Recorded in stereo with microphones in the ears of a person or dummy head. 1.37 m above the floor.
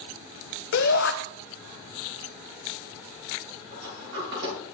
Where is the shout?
55° left (ahead or behind), 1.2 m.